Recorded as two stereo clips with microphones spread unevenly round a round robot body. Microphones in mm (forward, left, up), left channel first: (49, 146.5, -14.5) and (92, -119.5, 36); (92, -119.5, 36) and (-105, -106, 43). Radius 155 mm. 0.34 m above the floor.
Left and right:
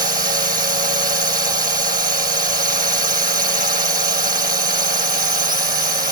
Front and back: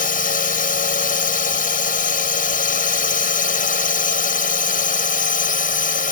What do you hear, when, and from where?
0.0 s a drone: 25° right